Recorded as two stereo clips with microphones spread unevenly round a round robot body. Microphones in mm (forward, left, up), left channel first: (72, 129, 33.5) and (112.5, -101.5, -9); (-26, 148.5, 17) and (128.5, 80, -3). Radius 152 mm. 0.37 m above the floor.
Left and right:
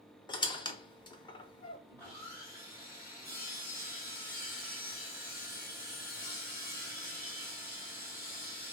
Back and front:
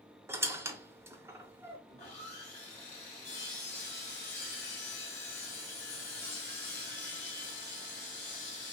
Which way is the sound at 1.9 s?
170° right.